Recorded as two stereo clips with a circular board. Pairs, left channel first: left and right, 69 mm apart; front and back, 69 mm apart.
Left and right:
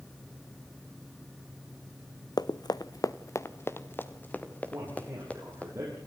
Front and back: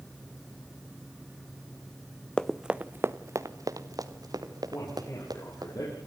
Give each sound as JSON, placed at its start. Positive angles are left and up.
{"t": 2.4, "sound": "running footsteps", "azimuth_deg": 80, "distance_m": 0.8}
{"t": 4.7, "sound": "a man speaking", "azimuth_deg": -35, "distance_m": 6.5}